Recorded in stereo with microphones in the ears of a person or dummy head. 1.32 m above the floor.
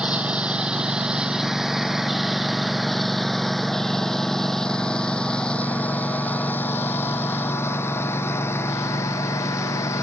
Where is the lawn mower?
5° right (ahead or behind); by 10.0 s 20° left (ahead or behind).